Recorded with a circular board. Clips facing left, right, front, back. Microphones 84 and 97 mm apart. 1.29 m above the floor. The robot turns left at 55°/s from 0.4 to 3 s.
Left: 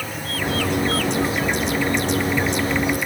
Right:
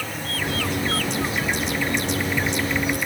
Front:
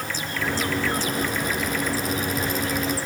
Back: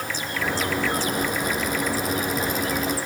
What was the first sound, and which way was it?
Only background noise.